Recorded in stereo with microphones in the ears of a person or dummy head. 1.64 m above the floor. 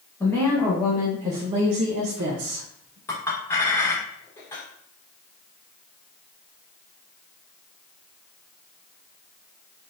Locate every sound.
0.2 s a woman speaking: 10° left (ahead or behind), 1.1 m; by 3.0 s 65° right (ahead or behind), 1.2 m
3.1 s a clink: 10° left (ahead or behind), 1.1 m